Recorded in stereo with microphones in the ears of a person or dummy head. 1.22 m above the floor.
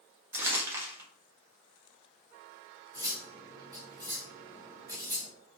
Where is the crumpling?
10° right (ahead or behind), 1.4 m.